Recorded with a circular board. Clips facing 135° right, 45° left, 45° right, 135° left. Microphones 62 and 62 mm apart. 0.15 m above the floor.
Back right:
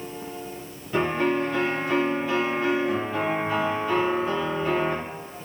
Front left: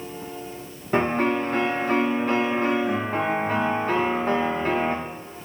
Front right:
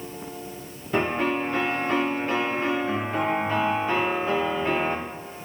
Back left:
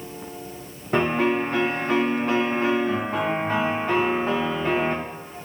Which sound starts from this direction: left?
A piano, at 0.9 s.